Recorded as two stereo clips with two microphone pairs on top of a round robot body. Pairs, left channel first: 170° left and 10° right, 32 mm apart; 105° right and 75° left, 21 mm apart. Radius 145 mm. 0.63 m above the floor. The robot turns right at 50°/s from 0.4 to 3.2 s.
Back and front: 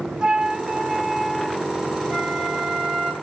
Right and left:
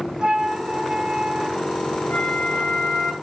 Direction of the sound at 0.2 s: 50° left.